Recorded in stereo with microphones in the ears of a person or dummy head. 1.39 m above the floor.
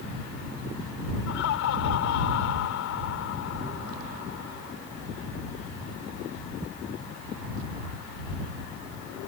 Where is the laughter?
65° left (ahead or behind).